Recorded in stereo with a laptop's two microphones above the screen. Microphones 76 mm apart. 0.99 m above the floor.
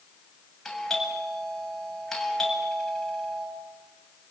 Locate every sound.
0.7 s a doorbell: 5° left (ahead or behind), 7.5 m